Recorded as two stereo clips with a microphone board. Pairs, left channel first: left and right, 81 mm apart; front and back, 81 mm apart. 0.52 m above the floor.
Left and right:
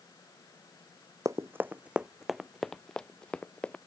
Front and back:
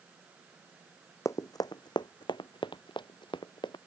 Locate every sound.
1.2 s running footsteps: 45° right; by 3.8 s 15° left